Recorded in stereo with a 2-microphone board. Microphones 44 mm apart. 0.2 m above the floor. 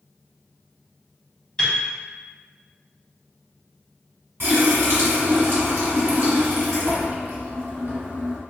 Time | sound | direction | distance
1.6 | a piano | 20° left (ahead or behind) | 0.8 m
4.4 | a running tap | 55° right (ahead or behind) | 1.6 m